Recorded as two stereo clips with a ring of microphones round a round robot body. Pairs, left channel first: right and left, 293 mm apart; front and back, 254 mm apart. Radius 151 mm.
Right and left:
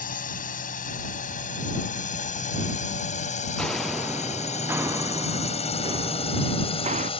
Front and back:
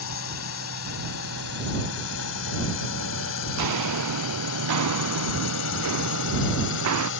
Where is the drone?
30° right; by 7.2 s 25° right.